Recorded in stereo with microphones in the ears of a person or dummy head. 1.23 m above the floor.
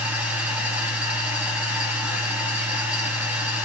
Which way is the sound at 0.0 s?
5° right (ahead or behind).